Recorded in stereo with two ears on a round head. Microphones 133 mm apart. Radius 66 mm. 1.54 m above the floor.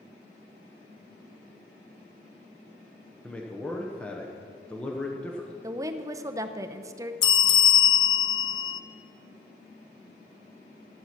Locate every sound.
3.2 s a man speaking: 10° left (ahead or behind), 0.9 m
5.6 s a woman speaking: 20° right (ahead or behind), 0.7 m
7.2 s a bell: 30° left (ahead or behind), 0.6 m